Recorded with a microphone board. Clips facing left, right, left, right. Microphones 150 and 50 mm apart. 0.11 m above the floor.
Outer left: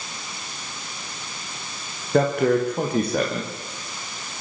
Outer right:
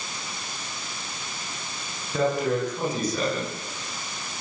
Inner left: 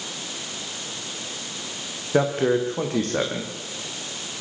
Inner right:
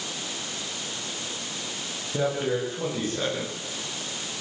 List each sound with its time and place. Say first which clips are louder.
2.1 s a man speaking: outer left 5 dB, inner left 6 dB; 60° left (ahead or behind), 9.5 m